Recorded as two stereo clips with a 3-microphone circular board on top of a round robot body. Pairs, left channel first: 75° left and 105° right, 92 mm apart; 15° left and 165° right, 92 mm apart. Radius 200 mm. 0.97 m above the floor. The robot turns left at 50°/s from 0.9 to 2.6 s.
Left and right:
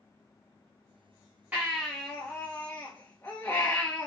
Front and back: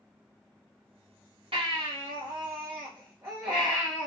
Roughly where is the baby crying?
Behind.